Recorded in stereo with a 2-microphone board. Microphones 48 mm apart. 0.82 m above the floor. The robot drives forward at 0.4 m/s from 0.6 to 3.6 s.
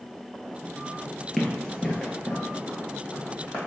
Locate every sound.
1.4 s running footsteps: centre (ahead or behind), 0.8 m; by 3.6 s 25° left (ahead or behind), 2 m